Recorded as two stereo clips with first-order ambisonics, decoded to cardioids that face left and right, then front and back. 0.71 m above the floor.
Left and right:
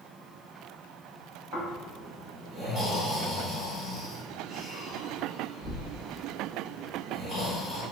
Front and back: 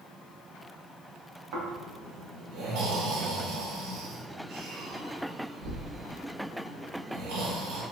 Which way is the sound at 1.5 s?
Straight behind.